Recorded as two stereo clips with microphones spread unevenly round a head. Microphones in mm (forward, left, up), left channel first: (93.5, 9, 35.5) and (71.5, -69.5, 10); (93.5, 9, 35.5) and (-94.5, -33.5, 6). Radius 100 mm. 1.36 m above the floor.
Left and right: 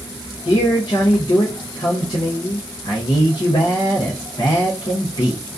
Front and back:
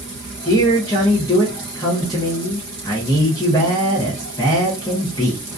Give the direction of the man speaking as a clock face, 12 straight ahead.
9 o'clock.